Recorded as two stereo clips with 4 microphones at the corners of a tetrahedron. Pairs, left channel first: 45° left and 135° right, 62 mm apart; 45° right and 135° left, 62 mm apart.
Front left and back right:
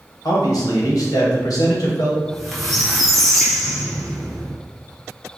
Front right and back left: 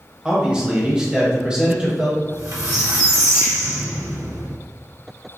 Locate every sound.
0.2 s a man speaking: 60° left, 1.4 m
2.2 s a squeak: 130° left, 1.1 m